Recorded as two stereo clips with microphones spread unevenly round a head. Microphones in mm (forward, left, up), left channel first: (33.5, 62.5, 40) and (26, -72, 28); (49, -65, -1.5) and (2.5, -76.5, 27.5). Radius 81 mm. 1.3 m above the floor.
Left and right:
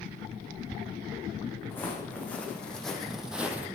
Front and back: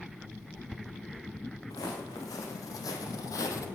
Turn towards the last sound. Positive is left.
turn(degrees=-15)